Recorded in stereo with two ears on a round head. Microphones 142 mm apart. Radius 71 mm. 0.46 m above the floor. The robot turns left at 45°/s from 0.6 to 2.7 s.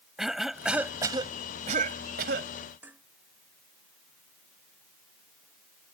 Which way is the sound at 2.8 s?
10° right (ahead or behind).